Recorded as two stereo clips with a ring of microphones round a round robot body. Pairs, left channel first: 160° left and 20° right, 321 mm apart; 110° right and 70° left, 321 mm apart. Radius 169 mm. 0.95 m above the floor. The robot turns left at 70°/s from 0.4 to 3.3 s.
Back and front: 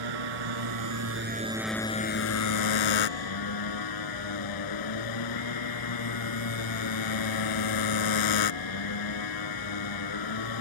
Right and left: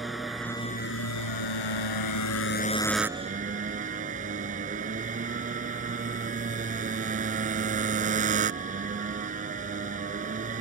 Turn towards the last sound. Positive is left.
turn(degrees=135)